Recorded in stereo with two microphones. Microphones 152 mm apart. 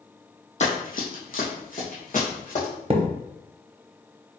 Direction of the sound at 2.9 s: 40° right (ahead or behind).